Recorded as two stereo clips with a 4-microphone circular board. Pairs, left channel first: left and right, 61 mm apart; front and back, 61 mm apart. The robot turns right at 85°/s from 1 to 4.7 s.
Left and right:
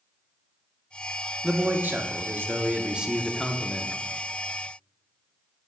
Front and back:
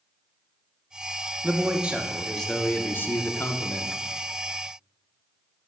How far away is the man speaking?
About 0.7 m.